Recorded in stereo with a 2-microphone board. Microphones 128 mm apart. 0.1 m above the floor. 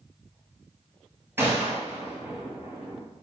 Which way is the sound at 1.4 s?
20° right (ahead or behind).